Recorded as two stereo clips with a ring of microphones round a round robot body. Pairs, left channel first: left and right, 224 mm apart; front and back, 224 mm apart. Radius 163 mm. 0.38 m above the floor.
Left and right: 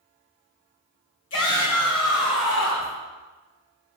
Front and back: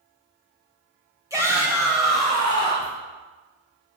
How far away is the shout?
About 2.5 m.